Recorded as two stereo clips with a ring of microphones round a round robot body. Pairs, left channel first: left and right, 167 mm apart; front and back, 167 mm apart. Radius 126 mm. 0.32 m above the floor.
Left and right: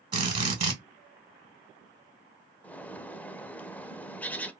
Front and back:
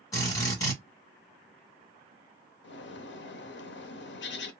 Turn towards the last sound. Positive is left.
turn(degrees=10)